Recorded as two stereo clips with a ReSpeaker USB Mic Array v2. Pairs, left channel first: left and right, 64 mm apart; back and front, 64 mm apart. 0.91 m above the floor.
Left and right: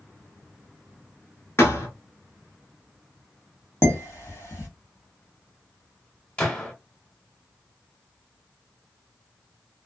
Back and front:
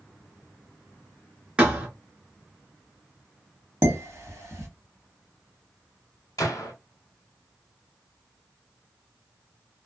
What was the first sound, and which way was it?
A thud, 65° left.